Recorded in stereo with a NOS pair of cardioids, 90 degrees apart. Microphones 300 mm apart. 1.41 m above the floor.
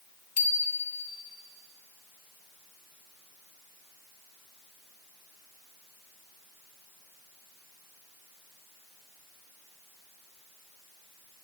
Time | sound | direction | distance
0.4 | a bicycle bell | 55° left | 3 m